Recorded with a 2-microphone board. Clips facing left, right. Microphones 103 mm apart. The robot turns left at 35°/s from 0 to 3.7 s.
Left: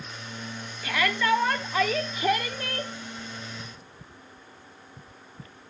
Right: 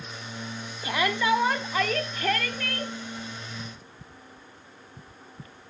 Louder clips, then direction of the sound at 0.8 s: Even; 145° right.